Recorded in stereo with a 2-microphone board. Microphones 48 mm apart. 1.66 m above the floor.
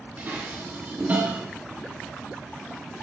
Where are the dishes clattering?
35° right (ahead or behind), 1.7 m.